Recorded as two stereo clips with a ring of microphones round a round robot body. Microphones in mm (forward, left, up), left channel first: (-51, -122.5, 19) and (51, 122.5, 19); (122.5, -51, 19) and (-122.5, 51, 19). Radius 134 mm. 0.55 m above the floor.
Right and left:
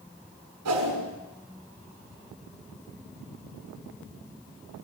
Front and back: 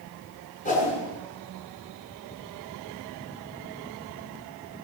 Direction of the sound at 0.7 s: 40° left.